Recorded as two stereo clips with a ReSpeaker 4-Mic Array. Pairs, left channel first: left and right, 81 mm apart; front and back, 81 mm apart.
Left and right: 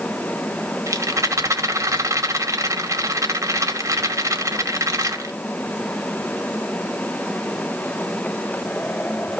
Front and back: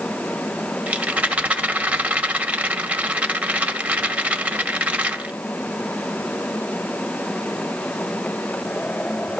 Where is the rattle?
115° right, 2 m.